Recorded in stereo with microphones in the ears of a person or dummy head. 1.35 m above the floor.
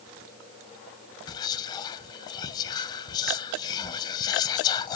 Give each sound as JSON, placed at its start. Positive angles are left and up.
{"t": 1.3, "sound": "whispering", "side_deg": 30, "distance_m": 0.7}